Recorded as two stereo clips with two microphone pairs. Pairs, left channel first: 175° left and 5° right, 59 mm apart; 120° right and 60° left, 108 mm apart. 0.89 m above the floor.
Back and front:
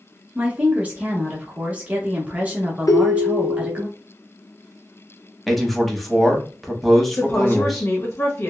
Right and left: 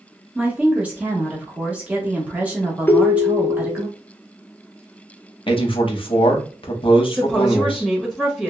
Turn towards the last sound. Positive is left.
turn(degrees=140)